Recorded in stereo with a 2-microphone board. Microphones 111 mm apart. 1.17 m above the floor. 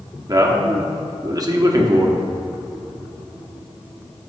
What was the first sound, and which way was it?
A man speaking, 35° right (ahead or behind).